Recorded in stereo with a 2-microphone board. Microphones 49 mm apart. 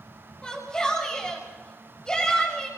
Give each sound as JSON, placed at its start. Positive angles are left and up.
{"t": 0.4, "sound": "a shout", "side_deg": 15, "distance_m": 6.0}